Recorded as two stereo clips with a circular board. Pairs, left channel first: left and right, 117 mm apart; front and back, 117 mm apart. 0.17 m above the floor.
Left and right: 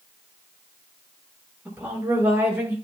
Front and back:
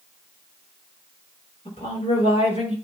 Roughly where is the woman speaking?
Ahead right.